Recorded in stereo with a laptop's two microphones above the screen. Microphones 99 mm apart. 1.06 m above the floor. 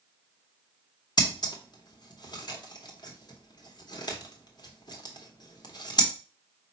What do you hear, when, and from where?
1.2 s scissors: 45° left (ahead or behind), 0.8 m